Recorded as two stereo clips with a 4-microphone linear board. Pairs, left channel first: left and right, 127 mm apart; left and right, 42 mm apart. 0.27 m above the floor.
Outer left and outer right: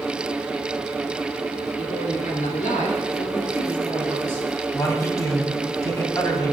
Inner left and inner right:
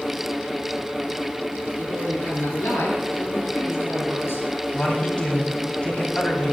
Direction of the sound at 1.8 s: 75° left (ahead or behind).